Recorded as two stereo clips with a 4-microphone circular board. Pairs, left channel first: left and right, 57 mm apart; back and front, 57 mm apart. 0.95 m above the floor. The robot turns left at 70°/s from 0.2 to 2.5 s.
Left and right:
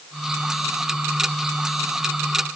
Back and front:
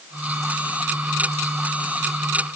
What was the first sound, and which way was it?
Only background noise.